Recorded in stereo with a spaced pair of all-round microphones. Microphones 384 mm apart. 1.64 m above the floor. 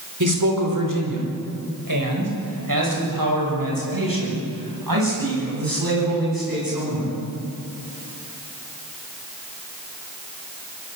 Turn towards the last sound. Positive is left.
turn(degrees=-70)  # may be behind; listen again after turning